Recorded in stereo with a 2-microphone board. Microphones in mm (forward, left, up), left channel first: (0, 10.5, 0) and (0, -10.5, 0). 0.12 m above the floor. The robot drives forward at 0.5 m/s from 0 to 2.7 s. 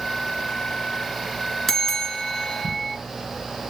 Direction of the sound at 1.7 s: 20° left (ahead or behind).